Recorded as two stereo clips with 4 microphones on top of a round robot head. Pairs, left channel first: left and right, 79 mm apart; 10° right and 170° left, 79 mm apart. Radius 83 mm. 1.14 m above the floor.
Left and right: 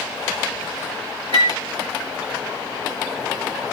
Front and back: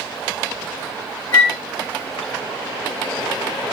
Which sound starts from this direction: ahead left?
A flute, at 1.3 s.